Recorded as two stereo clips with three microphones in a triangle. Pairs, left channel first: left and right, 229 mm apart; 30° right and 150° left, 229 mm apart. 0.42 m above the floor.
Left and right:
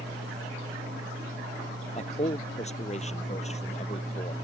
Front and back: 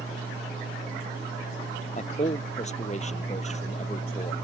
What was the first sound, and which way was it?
A man speaking, 30° left.